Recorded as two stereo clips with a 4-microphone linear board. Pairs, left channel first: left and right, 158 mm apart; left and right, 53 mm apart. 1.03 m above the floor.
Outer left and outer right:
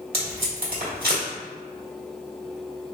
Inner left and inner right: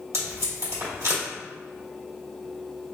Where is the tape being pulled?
75° right (ahead or behind), 1.3 m.